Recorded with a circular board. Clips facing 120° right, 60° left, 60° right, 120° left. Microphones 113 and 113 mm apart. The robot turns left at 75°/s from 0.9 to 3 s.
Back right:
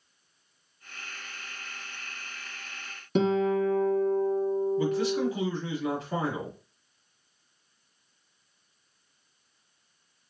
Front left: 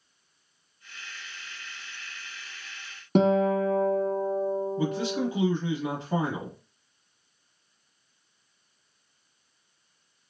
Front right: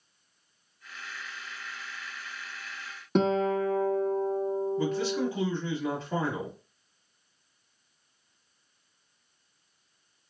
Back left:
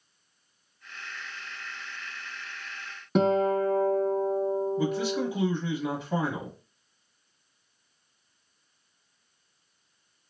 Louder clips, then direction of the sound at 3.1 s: Front left 3 dB, back left 2 dB; 35° left.